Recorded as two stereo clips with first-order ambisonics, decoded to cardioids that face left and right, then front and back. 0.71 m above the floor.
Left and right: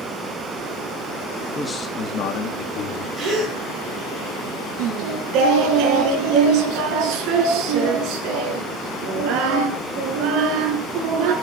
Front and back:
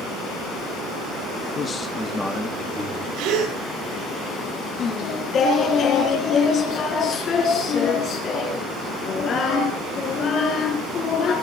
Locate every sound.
1.6 s a man speaking: 5° left, 1.1 m; by 3.1 s 95° left, 2.5 m
3.2 s a gasp: 155° right, 7.5 m
4.8 s singing: 55° right, 3 m